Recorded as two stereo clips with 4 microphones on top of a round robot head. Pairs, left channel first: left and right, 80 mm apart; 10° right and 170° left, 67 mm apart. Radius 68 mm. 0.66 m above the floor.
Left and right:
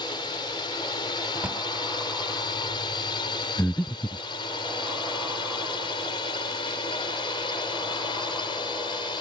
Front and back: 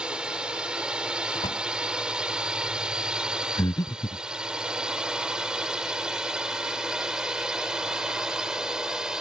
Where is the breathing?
20° left.